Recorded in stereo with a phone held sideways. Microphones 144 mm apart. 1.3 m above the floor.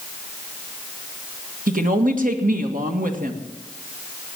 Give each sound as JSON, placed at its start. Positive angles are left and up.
{"t": 1.7, "sound": "a woman speaking", "side_deg": -75, "distance_m": 1.8}